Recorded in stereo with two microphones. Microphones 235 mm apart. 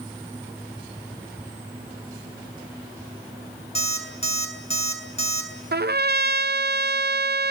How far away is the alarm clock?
About 5 m.